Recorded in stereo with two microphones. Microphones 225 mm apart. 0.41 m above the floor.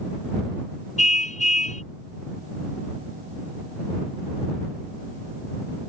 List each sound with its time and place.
1.0 s a car horn: 35° left (ahead or behind)